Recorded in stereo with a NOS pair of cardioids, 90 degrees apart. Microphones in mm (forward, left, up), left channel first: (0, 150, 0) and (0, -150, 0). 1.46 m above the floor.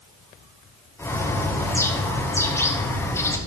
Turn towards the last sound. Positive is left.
turn(degrees=10)